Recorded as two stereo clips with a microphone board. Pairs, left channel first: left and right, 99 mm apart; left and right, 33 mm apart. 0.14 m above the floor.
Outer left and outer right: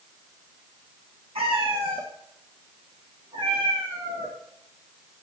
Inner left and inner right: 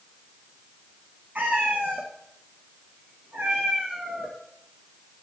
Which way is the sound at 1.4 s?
80° right.